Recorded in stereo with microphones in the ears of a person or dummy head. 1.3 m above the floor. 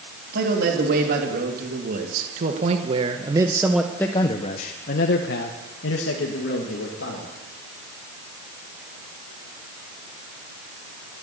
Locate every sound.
0.3 s a man speaking: 65° right (ahead or behind), 3 m; by 7.3 s 80° left, 2.5 m